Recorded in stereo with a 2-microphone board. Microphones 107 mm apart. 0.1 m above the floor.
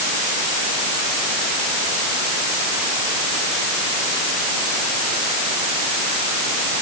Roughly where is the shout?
No shout in this recording.